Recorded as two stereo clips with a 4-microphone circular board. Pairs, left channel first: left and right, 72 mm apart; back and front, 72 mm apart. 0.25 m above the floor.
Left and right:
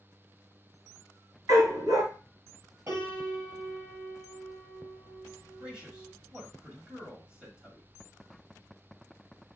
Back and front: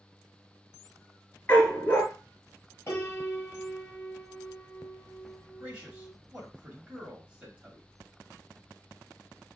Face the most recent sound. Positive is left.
turn(degrees=-40)